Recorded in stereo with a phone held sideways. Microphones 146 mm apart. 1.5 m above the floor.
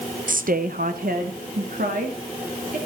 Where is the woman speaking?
65° right (ahead or behind), 0.7 m; by 2.8 s 80° right, 4 m.